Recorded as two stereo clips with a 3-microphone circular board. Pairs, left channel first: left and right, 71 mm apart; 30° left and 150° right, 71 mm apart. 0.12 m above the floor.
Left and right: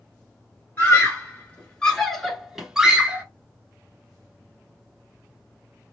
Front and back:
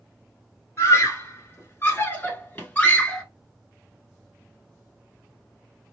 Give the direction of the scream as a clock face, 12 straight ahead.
10 o'clock.